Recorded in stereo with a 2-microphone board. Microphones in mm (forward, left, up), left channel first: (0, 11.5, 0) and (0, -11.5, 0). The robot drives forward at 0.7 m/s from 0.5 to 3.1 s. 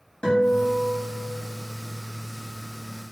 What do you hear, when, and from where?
0.2 s a guitar: 45° left (ahead or behind), 3.5 m; by 1.5 s 40° left (ahead or behind), 4 m